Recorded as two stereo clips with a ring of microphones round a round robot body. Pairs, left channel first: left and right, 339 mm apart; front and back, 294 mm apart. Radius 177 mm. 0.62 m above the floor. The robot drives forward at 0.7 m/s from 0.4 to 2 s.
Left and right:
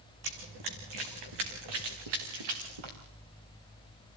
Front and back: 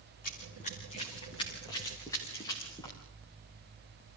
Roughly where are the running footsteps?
Right.